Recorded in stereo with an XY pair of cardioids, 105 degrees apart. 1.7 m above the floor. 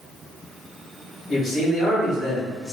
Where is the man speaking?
65° left, 1.9 m.